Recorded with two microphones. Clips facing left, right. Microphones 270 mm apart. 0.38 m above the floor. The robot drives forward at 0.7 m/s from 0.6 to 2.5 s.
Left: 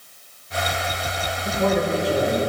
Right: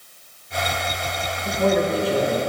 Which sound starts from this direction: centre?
A man speaking, at 1.4 s.